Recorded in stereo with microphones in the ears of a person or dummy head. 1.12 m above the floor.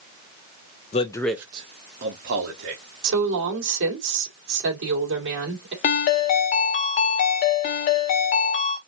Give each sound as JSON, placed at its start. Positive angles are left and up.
{"t": 0.9, "sound": "a man speaking", "side_deg": 35, "distance_m": 0.7}
{"t": 3.0, "sound": "a woman speaking", "side_deg": -70, "distance_m": 2.5}
{"t": 5.8, "sound": "a ringtone", "side_deg": 35, "distance_m": 0.7}